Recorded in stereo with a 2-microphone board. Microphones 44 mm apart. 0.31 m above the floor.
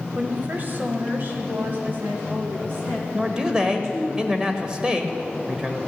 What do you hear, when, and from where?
0.1 s a woman speaking: 40° right (ahead or behind), 1.0 m; by 4.1 s 50° right (ahead or behind), 3 m
3.1 s a man speaking: 20° right (ahead or behind), 1.1 m